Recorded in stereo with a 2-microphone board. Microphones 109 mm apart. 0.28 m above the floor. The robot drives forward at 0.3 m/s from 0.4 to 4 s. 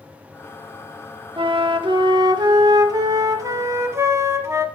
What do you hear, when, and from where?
1.4 s a flute: 50° right (ahead or behind), 0.6 m; by 4.7 s 25° right (ahead or behind), 1.0 m